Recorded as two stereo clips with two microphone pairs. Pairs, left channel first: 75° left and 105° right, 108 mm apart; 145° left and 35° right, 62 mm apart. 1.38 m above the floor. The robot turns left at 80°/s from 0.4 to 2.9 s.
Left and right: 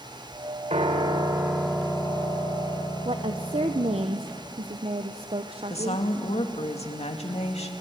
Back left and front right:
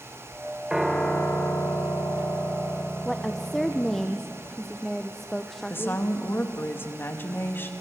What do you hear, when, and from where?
0.7 s a piano: 115° right, 3 m; by 4.0 s 70° left, 3 m
3.0 s a woman speaking: 130° right, 0.9 m
5.7 s a woman speaking: 90° left, 2.5 m